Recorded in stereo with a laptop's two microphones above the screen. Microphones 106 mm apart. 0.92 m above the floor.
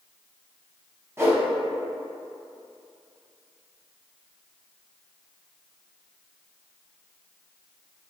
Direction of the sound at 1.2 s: 25° right (ahead or behind).